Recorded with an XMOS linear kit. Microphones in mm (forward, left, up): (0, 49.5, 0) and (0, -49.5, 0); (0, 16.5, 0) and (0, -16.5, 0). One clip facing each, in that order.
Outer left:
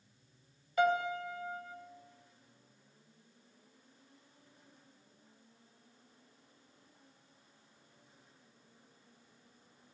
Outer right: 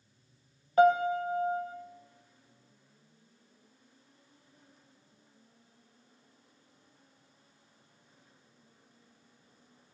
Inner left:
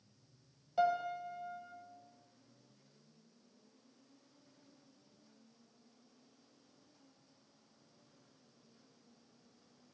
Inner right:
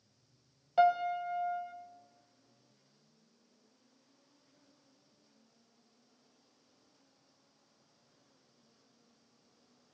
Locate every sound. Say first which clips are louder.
0.8 s a piano: outer right 7 dB, inner right 6 dB; 40° right (ahead or behind), 0.5 m